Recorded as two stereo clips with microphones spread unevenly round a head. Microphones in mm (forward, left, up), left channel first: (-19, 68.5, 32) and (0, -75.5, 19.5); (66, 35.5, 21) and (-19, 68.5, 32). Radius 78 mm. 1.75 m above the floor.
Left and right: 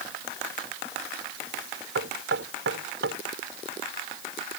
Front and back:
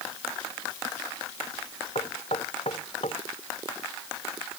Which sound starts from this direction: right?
Knocking, at 1.9 s.